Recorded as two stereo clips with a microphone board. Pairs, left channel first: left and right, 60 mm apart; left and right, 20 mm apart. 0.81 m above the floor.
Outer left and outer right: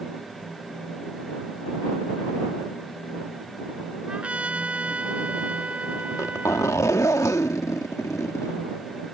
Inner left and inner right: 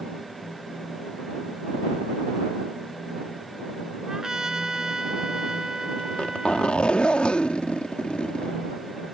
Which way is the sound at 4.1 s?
20° right (ahead or behind).